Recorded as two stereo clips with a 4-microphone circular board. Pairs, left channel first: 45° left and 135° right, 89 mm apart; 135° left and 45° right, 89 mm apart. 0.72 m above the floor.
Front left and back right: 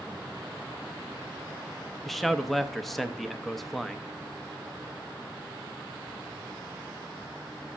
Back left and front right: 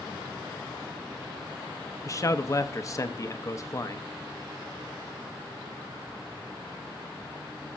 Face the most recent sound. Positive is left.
turn(degrees=135)